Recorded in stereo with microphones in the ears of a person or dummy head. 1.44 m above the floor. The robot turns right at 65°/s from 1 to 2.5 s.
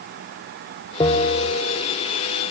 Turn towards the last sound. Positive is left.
turn(degrees=120)